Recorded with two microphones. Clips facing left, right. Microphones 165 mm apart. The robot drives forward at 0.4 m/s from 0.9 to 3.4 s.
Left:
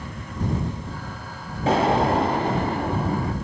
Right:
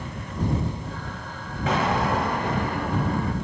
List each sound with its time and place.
1.7 s an explosion: 30° left (ahead or behind), 1.8 m; by 3.3 s 25° left (ahead or behind), 2.5 m